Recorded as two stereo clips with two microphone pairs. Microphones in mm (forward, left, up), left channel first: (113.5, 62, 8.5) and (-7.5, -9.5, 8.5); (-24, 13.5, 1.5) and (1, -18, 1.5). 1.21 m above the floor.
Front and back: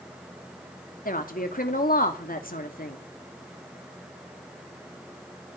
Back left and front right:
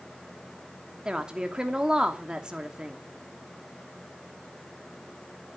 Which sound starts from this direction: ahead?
A woman speaking, at 1.1 s.